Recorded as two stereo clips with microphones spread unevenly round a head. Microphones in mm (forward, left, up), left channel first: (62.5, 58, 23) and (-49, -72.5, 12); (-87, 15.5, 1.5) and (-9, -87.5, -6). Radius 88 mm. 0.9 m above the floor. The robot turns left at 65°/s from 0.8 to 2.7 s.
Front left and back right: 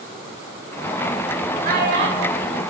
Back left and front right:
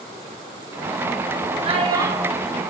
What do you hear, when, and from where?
1.6 s a child speaking: 90° right, 0.8 m; by 2.6 s 150° right, 0.8 m